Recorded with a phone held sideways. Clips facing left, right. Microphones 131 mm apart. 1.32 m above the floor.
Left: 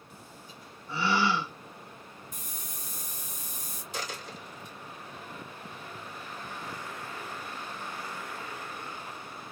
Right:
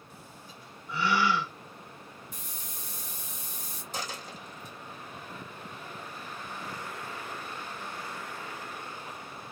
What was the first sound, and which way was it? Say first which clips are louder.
A gasp: even; 30° left (ahead or behind).